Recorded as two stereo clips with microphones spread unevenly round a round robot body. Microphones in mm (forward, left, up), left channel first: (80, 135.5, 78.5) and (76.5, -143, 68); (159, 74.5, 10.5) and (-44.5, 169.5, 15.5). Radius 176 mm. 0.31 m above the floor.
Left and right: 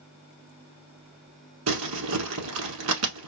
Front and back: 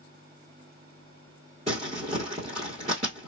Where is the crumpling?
135° right, 0.8 m.